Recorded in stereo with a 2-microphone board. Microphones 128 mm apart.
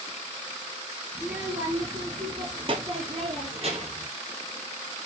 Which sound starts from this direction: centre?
A child speaking, at 1.1 s.